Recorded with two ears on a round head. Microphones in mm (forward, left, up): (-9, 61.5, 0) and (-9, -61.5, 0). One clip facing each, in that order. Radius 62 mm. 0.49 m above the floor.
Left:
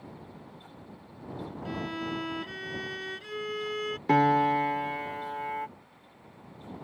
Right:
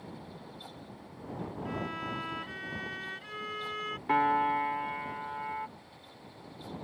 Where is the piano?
45° left (ahead or behind).